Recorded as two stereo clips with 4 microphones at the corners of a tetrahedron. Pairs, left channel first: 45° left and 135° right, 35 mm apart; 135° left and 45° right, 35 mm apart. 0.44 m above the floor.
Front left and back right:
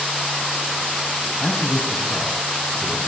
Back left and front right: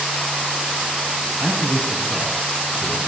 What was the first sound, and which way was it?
A man speaking, 10° right.